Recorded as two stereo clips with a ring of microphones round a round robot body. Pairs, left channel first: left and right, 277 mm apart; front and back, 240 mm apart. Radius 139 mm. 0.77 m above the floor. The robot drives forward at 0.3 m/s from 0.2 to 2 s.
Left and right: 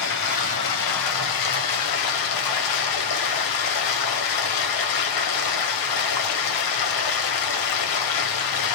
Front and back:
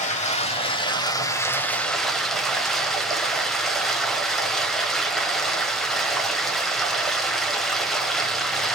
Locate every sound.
0.0 s running water: 60° left, 1.2 m; by 8.8 s 90° left, 1.1 m